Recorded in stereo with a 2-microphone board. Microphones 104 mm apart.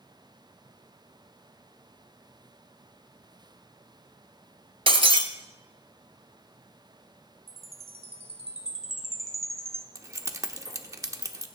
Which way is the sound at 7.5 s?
70° right (ahead or behind).